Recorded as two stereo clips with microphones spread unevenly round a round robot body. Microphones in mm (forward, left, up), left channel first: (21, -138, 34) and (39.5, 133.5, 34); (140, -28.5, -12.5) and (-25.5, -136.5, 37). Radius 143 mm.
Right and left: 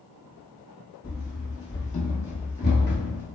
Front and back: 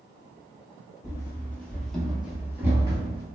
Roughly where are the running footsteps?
Ahead right.